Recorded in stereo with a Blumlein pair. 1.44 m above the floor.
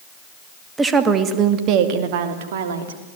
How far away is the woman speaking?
About 2 m.